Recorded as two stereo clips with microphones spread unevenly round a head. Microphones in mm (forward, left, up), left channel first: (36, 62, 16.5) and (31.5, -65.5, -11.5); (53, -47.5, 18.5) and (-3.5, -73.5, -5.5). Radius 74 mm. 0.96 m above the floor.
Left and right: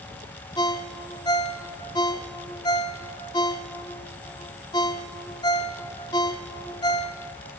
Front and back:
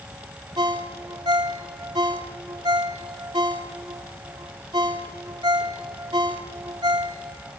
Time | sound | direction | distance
0.6 | a ringtone | 150° left | 1.0 m